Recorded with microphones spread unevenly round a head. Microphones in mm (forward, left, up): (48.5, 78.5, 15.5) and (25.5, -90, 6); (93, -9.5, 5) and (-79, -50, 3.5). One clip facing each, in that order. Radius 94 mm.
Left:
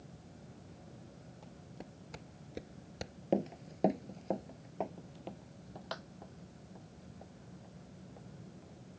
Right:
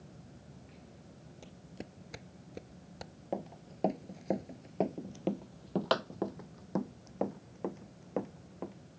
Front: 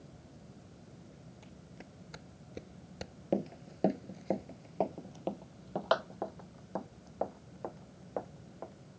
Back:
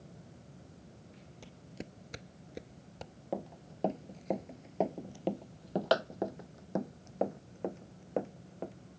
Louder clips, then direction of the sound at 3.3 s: Left 6 dB, front 6 dB; 50° left.